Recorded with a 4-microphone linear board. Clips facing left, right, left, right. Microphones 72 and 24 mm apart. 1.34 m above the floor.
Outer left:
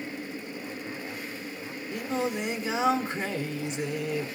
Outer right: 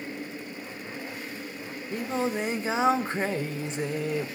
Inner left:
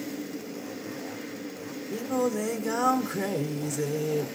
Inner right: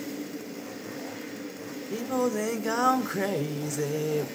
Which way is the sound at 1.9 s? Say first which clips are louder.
Outer right 1 dB, even; 35° right (ahead or behind).